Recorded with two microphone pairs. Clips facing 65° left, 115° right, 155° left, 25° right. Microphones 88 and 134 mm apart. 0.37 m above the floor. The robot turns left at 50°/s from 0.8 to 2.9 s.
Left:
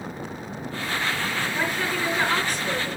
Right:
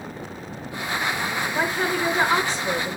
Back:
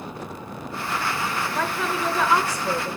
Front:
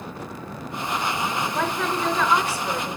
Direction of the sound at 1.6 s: 105° right.